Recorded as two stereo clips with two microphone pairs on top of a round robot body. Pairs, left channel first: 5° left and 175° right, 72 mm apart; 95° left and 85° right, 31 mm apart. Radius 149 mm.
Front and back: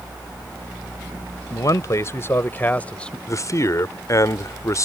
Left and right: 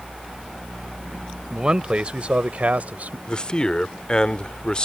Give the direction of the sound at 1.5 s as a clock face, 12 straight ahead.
1 o'clock.